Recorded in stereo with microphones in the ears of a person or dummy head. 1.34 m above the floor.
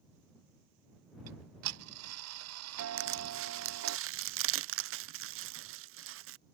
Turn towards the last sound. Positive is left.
turn(degrees=-65)  # may be behind; listen again after turning